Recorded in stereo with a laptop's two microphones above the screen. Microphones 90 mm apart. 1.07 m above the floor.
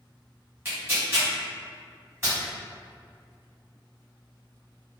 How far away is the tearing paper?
About 1.2 m.